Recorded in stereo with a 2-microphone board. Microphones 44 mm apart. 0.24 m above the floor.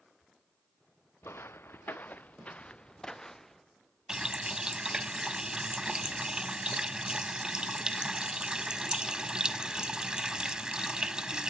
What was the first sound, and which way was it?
Footsteps, 75° left (ahead or behind).